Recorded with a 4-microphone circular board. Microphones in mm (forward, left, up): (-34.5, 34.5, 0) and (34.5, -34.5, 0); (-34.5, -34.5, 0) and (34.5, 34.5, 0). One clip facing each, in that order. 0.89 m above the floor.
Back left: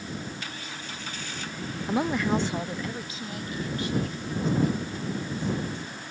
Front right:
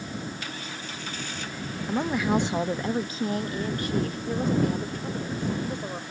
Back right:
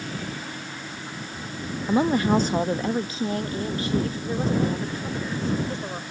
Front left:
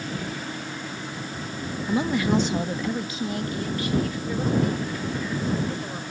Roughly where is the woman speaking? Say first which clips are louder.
Even, back right 3 dB; behind.